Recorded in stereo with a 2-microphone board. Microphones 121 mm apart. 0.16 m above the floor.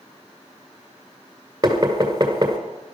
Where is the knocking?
30° right (ahead or behind), 2 m.